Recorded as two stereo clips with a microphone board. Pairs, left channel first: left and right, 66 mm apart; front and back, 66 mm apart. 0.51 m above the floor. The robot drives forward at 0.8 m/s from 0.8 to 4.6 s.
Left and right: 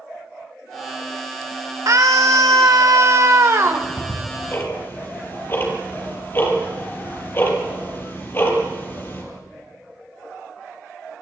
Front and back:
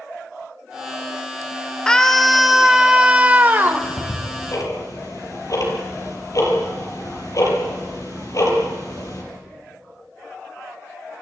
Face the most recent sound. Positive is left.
turn(degrees=35)